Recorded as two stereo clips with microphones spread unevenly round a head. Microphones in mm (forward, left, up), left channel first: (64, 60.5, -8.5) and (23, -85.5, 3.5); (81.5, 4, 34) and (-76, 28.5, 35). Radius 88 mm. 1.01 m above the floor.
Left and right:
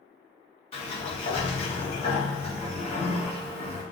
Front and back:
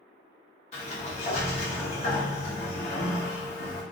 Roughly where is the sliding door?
Ahead left.